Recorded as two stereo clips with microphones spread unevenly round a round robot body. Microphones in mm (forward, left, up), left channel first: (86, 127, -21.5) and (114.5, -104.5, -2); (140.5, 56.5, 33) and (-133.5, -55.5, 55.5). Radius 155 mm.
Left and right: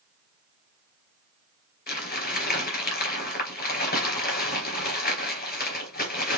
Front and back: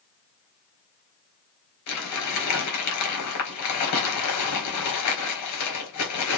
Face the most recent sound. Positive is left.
turn(degrees=55)